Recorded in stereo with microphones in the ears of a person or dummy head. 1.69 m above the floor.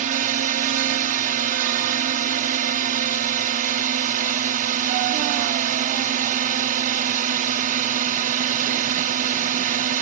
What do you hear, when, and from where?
0.0 s a drone: 40° right (ahead or behind)